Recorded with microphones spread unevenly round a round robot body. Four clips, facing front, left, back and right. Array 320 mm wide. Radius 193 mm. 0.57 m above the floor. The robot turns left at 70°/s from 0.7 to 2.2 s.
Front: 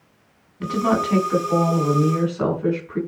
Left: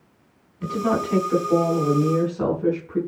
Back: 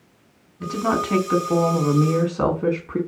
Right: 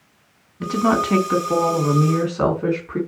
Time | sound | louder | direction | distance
0.6 | a woman speaking | right 4 dB, front 2 dB | 70° right | 5.5 m